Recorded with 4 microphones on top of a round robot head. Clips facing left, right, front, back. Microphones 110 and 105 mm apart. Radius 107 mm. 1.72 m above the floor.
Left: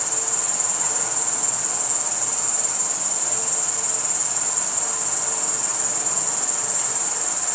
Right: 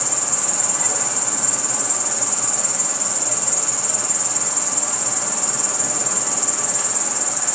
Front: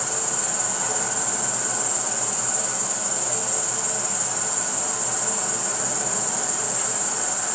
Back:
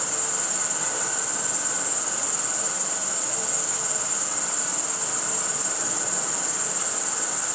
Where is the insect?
65° right, 1.0 m.